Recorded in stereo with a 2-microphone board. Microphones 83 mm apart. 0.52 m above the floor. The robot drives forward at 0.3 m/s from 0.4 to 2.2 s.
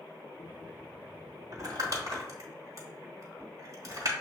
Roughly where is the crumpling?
Right.